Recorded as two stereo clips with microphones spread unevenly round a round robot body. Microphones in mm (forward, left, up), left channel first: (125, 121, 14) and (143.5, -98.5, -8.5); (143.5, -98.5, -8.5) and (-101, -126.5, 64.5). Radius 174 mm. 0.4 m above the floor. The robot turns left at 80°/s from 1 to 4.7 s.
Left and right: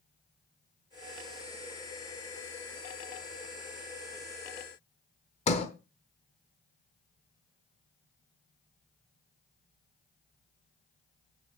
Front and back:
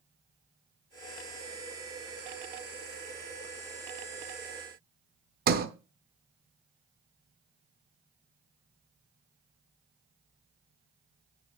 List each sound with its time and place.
5.5 s a sliding door: 140° left, 0.9 m